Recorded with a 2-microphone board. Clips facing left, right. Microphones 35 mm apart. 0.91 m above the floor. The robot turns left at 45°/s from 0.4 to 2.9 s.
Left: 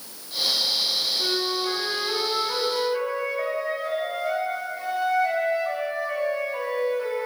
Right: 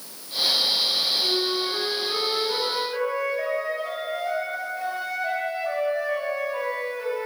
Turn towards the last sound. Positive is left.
turn(degrees=-20)